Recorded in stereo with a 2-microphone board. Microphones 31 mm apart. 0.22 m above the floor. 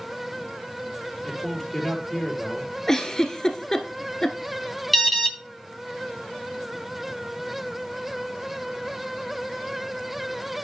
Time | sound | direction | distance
1.2 | a man speaking | 10° left (ahead or behind) | 5 m
2.9 | a giggle | 20° left (ahead or behind) | 1.4 m
4.9 | an alarm | 5° left (ahead or behind) | 2.5 m